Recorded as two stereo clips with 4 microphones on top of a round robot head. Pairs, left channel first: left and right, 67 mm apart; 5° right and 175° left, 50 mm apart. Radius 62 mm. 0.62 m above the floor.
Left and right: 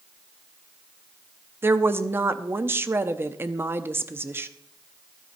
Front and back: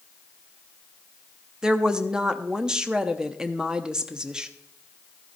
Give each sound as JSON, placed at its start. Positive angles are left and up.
{"t": 1.6, "sound": "a woman speaking", "azimuth_deg": -115, "distance_m": 0.9}